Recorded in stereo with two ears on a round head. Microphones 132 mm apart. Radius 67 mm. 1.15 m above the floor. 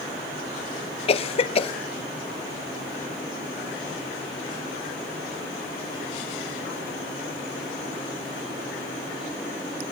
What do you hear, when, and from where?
1.1 s a cough: 40° left (ahead or behind), 0.6 m